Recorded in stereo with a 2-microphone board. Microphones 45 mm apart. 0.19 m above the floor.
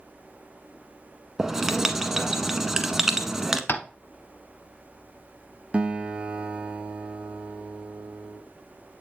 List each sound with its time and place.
1.4 s writing: 10° right (ahead or behind), 0.7 m
3.7 s tapping: 50° left (ahead or behind), 0.8 m
5.7 s a guitar: 25° right (ahead or behind), 0.7 m